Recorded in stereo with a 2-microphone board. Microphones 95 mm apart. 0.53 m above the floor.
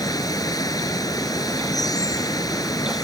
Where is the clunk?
No clunk in this recording.